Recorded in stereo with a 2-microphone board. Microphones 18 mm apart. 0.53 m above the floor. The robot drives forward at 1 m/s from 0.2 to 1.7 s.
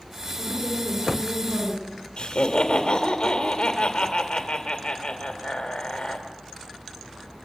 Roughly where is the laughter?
Left.